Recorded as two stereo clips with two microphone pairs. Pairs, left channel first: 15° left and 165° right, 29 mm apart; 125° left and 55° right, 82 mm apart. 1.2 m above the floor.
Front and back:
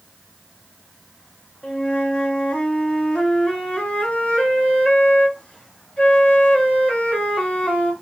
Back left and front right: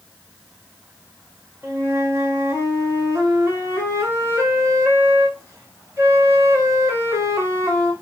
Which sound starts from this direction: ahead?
A flute, at 1.6 s.